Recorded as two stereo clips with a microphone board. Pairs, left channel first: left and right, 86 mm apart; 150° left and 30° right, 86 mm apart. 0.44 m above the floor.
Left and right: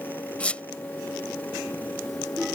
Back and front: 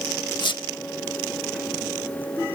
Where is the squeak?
165° left.